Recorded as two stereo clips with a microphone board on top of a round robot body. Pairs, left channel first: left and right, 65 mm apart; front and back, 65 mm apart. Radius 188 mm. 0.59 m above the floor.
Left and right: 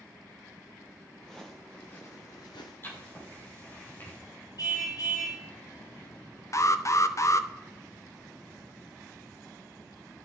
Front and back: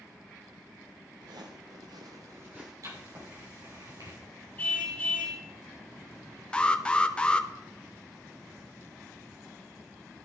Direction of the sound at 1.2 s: 175° left.